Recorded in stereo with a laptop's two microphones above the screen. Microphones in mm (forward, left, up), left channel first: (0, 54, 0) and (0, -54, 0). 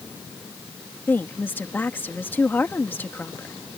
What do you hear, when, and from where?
1.1 s a woman speaking: 20° left (ahead or behind)